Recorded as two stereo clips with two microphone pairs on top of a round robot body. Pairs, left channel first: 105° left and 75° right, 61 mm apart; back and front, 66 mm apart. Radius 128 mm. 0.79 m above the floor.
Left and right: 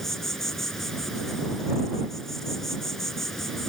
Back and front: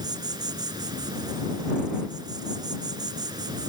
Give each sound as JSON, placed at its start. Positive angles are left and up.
{"t": 0.0, "sound": "an insect", "azimuth_deg": 20}